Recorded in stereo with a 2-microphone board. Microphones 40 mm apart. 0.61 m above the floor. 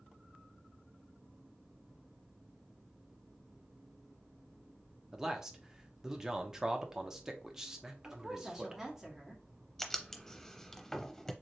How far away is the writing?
About 0.6 m.